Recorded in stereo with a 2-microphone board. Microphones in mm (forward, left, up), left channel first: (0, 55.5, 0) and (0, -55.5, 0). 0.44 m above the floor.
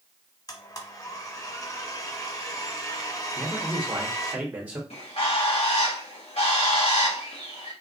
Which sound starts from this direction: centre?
A man speaking, at 3.4 s.